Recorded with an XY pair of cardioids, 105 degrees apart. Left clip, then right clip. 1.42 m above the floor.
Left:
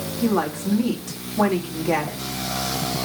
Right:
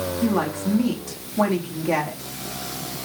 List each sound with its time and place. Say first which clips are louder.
0.2 s a woman speaking: left 3 dB; 5° right, 3 m